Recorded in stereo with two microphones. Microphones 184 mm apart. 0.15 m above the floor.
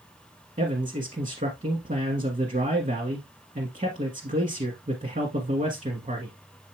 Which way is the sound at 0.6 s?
45° right (ahead or behind).